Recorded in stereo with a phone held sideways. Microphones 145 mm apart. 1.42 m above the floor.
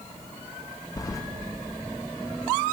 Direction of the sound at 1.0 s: 25° left (ahead or behind).